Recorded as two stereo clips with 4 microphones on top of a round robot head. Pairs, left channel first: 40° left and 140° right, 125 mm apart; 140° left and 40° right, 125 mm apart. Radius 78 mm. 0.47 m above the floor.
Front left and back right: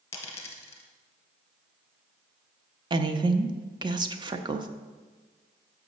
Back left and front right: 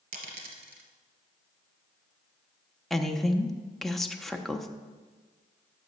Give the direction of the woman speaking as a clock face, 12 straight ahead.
4 o'clock.